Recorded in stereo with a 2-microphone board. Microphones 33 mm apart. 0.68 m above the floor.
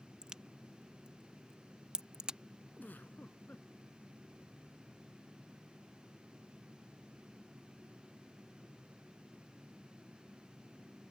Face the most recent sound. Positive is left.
turn(degrees=75)  # may be behind; listen again after turning